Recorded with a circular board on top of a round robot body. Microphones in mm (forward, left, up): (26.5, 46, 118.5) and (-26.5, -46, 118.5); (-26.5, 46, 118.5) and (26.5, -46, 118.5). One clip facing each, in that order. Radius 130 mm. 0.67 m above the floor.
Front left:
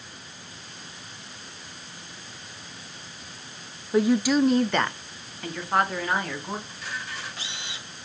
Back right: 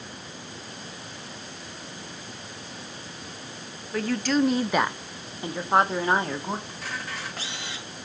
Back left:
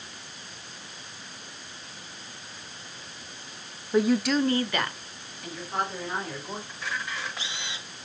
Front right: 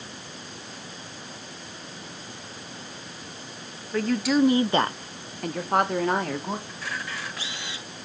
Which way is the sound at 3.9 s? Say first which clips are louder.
Front left 4 dB, even; 85° left.